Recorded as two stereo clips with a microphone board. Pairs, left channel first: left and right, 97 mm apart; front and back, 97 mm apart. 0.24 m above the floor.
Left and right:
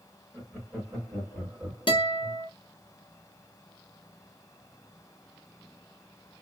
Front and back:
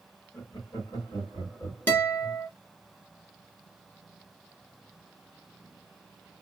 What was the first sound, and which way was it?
Laughter, 25° left.